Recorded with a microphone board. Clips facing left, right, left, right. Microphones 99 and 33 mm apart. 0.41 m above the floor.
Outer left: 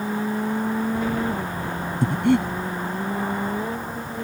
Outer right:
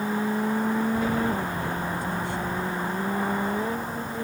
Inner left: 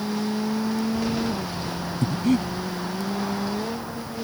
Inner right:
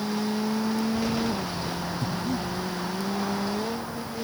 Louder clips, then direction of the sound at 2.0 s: Outer left 9 dB, inner left 10 dB; 70° left (ahead or behind).